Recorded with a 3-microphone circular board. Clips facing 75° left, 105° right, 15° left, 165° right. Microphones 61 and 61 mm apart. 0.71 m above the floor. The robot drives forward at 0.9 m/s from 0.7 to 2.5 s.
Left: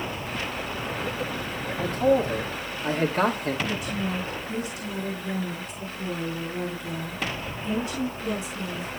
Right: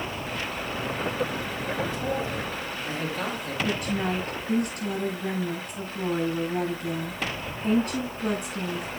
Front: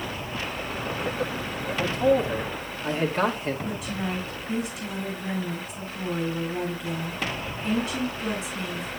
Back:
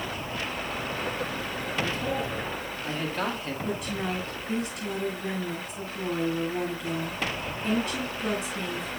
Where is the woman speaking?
75° right, 8 m.